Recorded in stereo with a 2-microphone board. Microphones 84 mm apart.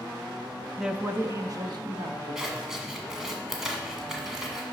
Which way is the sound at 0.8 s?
Centre (ahead or behind).